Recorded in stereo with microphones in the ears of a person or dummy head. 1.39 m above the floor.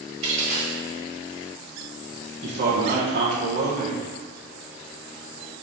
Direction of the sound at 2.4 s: 35° right (ahead or behind).